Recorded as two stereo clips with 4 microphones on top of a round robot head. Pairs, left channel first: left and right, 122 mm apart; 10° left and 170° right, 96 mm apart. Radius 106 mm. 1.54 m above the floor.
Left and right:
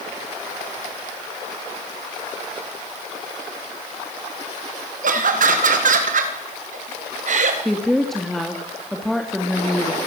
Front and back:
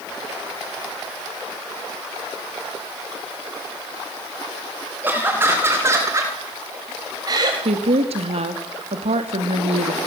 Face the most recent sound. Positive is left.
turn(degrees=180)